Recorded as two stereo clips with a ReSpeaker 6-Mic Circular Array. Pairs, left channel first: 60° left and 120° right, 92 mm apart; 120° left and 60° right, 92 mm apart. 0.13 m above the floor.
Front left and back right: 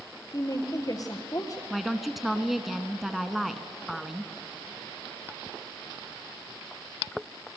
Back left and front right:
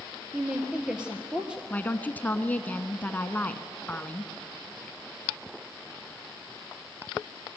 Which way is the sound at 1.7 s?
155° left.